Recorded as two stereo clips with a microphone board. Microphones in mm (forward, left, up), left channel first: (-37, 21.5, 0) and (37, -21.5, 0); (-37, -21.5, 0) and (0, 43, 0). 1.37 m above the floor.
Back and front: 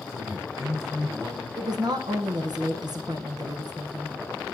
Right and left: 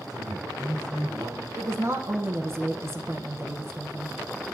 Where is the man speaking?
30° left, 3.5 m.